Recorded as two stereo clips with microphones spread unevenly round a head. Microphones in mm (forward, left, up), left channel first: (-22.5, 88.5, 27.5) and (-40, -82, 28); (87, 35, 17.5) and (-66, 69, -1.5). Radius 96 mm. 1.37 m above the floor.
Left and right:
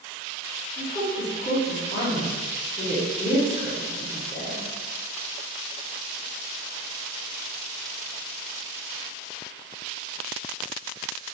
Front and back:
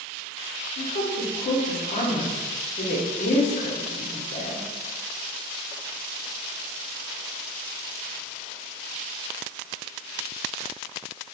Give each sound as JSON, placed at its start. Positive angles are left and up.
{"t": 0.8, "sound": "a woman speaking", "azimuth_deg": 25, "distance_m": 0.7}